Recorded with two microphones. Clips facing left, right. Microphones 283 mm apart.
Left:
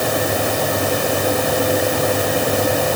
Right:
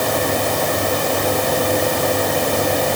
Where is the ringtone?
No ringtone in this recording.